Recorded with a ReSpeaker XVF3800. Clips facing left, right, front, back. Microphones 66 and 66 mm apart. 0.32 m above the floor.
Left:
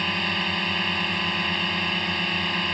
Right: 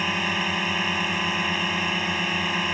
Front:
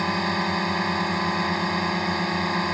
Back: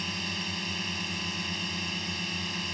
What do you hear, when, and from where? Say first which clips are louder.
0.0 s a drone: right 1 dB, front 12 dB; 10° right